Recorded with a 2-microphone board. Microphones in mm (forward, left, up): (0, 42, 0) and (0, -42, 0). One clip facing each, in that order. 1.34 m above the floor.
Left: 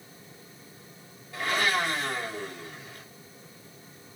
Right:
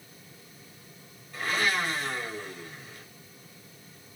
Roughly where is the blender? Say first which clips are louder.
Left 1 dB; left.